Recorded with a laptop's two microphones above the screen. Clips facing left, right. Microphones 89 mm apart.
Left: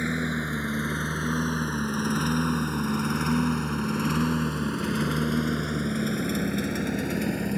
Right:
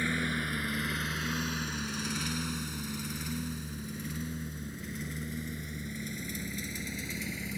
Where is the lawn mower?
20° left (ahead or behind); by 7.6 s 60° left (ahead or behind).